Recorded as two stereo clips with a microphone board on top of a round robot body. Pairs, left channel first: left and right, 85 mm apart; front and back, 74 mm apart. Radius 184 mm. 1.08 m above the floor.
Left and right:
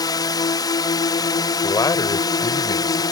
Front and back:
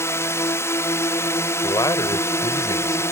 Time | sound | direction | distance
0.0 | a drone | 55° left | ?
1.6 | a man speaking | 45° left | ?